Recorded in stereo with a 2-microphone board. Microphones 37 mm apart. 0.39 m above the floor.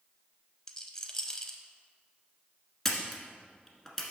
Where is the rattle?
15° left (ahead or behind), 0.6 m.